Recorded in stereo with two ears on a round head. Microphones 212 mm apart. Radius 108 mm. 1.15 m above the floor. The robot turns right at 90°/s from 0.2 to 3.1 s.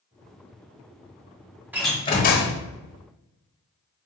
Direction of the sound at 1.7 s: 10° right.